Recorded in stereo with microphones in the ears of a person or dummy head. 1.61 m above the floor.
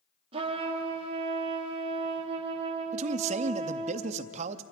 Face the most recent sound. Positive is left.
turn(degrees=-40)  # may be behind; listen again after turning